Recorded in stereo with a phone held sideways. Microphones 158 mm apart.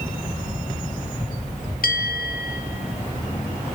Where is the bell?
70° left (ahead or behind), 1.1 m.